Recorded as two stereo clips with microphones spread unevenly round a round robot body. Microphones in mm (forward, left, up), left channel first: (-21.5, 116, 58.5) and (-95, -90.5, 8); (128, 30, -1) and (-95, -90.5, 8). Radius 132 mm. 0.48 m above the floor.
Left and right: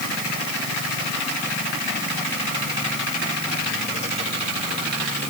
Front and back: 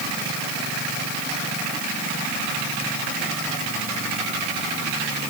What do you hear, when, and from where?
Only background noise.